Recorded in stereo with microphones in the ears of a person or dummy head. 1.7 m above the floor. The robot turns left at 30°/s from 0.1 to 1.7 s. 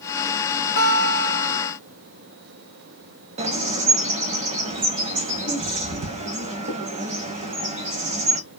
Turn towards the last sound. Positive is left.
turn(degrees=-40)  # may be behind; listen again after turning